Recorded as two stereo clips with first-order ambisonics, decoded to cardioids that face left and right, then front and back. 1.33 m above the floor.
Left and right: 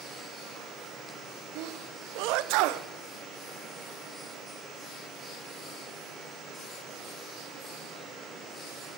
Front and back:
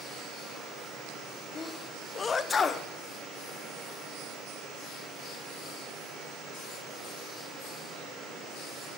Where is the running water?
140° right, 6.5 m.